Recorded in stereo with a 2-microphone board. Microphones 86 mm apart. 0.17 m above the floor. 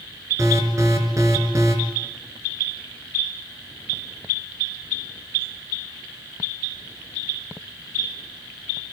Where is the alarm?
40° right (ahead or behind), 4 m.